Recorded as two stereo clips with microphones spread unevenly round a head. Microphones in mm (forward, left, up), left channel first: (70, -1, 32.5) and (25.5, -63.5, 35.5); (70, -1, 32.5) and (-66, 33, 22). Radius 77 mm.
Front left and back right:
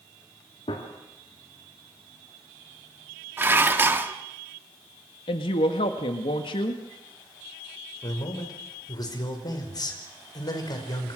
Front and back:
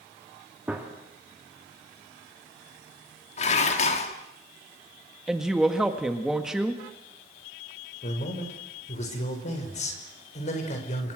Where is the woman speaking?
80° left, 1.7 m.